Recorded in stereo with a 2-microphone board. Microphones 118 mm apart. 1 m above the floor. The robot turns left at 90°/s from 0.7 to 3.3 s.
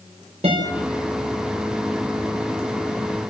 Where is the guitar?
60° right (ahead or behind), 5 m; by 0.7 s 55° right (ahead or behind), 5 m.